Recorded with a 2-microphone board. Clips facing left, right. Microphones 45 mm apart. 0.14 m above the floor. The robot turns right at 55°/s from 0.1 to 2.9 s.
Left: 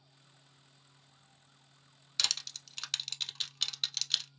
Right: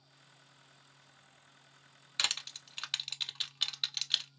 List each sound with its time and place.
2.2 s crushing: 25° right (ahead or behind), 0.6 m; by 4.3 s 10° right (ahead or behind), 0.6 m